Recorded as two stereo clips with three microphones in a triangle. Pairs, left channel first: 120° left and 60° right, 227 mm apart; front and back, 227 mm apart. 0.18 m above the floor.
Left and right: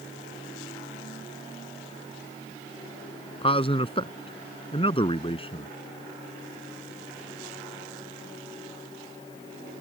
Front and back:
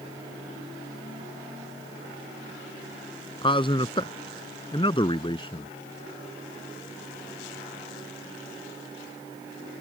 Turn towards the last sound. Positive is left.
turn(degrees=60)